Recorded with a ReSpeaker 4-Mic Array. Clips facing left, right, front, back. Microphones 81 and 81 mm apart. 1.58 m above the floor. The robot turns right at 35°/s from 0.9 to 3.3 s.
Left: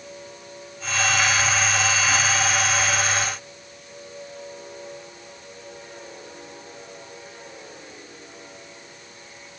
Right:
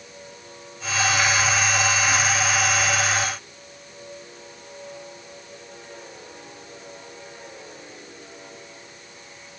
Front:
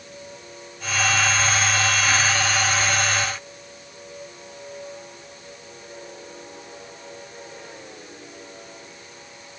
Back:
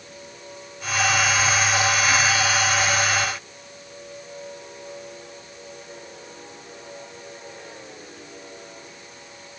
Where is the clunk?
I don't hear a clunk.